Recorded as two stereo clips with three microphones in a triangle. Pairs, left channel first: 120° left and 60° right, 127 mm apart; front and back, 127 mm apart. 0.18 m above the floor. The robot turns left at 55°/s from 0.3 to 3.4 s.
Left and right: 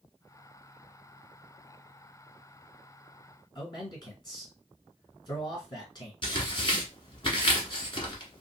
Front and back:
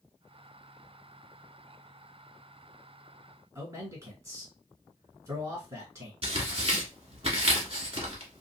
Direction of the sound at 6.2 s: 155° left.